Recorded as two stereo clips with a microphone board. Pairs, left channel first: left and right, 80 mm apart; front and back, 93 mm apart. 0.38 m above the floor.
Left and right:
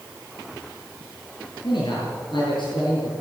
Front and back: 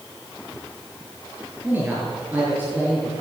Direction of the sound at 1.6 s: 110° left.